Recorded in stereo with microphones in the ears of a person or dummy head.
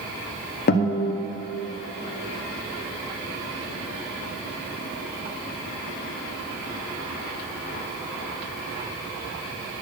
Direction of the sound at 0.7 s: 50° left (ahead or behind).